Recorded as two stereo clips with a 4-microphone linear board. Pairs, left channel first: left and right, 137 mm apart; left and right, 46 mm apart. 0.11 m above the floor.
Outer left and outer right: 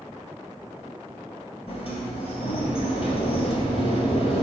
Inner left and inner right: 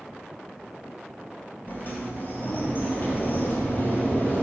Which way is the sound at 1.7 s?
45° left (ahead or behind).